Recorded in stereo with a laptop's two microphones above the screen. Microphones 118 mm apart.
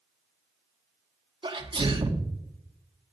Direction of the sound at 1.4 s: 45° right (ahead or behind).